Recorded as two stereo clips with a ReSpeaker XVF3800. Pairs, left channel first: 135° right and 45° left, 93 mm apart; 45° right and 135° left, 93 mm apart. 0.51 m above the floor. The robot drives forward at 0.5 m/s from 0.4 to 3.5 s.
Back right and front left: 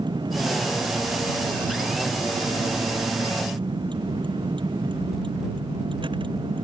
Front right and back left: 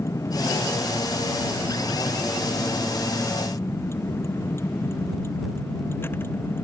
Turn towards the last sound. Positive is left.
turn(degrees=20)